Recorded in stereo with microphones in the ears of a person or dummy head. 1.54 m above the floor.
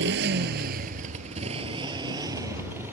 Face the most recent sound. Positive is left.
turn(degrees=-10)  # may be behind; listen again after turning